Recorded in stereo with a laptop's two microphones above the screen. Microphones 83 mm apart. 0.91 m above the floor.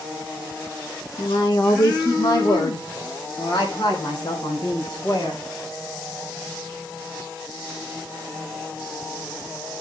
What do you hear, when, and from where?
1.2 s a woman speaking: 55° left (ahead or behind), 0.9 m; by 5.4 s 45° left (ahead or behind), 5 m